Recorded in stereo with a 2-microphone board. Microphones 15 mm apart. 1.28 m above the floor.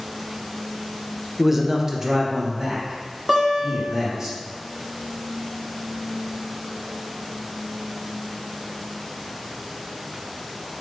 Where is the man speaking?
10° right (ahead or behind), 0.5 m; by 4.3 s 45° right (ahead or behind), 2 m.